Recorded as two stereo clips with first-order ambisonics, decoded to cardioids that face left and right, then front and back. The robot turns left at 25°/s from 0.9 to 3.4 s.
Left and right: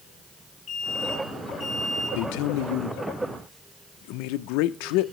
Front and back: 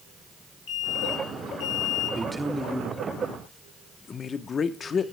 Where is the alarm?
25° left, 3.5 m; by 2.2 s 5° right, 3.5 m.